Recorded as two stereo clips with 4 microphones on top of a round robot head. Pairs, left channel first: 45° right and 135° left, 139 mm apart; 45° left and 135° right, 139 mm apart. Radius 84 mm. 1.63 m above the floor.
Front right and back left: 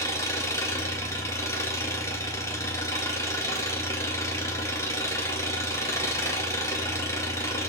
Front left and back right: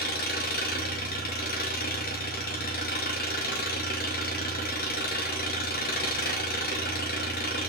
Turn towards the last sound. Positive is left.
turn(degrees=25)